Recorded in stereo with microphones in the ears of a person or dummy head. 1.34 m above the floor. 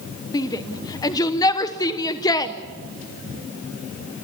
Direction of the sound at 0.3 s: 20° left (ahead or behind).